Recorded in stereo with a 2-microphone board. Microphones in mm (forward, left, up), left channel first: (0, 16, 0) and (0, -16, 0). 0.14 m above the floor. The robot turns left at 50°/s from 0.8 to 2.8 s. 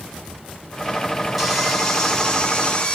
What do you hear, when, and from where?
1.4 s sawing: straight behind, 1.5 m; by 3.0 s 105° left, 1.5 m